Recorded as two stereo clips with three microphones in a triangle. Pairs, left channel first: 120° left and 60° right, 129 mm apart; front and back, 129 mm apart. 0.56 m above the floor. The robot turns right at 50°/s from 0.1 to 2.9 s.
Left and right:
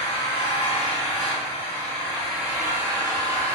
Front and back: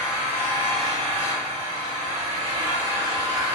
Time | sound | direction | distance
0.0 | an engine running | 100° left | 1.8 m